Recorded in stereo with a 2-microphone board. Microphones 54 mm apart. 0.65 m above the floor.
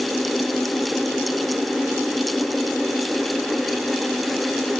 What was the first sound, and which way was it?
Only background noise.